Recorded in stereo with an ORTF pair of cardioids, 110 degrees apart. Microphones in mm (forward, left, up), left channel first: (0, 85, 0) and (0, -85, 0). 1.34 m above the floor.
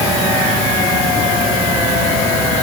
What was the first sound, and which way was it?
Only background noise.